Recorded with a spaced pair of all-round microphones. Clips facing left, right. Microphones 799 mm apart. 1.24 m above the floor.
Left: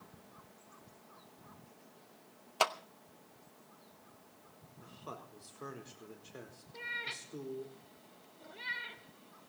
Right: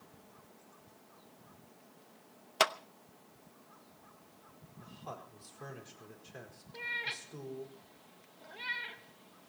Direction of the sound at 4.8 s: 25° right (ahead or behind).